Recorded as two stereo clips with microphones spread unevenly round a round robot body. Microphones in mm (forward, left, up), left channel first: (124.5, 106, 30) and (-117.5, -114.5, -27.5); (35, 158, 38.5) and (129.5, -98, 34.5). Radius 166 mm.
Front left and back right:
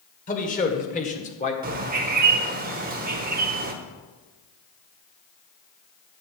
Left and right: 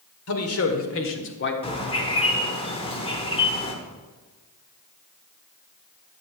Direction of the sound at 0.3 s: 110° left.